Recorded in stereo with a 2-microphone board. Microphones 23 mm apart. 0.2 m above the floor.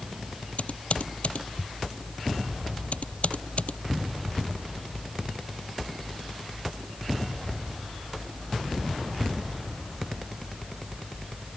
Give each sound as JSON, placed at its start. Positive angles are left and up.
{"t": 0.6, "sound": "typing on a keyboard", "side_deg": 80}